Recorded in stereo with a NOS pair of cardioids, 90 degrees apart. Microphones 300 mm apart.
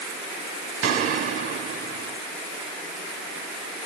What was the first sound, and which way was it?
A gunshot, 45° right.